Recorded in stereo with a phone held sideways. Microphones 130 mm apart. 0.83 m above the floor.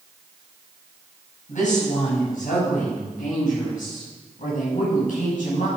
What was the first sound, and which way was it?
A woman speaking, 70° left (ahead or behind).